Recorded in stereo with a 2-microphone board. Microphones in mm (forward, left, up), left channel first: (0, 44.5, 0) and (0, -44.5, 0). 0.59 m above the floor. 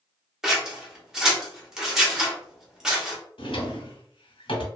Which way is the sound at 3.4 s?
80° left.